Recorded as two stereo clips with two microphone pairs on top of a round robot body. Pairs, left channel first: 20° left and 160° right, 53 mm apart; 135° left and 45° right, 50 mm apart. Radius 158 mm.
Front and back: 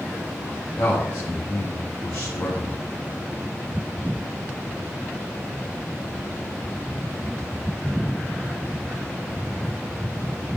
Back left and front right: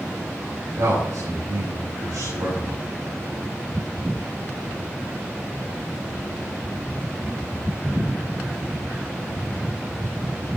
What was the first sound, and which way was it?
A man speaking, 30° right.